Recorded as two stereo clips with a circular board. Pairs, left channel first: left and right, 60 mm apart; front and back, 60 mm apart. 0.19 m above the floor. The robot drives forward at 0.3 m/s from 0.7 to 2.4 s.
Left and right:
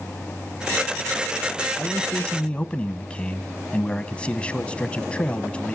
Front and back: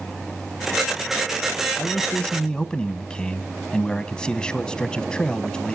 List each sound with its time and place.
1.8 s a man speaking: 35° left, 1.1 m; by 5.8 s 50° left, 1.1 m